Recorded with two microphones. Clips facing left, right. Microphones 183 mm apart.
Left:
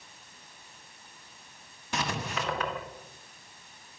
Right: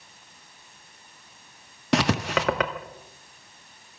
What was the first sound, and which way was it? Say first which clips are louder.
Writing: right 10 dB; 80° right.